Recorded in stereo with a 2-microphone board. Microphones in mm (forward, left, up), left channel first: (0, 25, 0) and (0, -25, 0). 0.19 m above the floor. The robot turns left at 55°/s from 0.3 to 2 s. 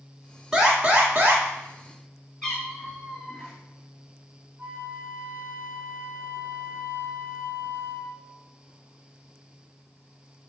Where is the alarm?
15° right, 1.4 m; by 1.4 s 65° right, 1.4 m.